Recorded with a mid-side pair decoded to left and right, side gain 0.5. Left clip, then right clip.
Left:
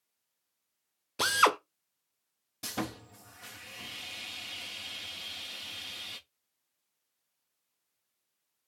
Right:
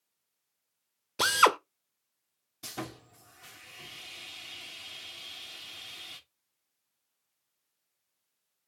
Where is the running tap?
I don't hear a running tap.